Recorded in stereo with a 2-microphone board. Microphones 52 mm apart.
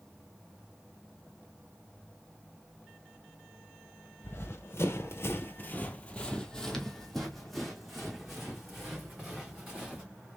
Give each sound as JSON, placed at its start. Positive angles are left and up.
{"t": 4.2, "sound": "running footsteps", "side_deg": 50, "distance_m": 0.9}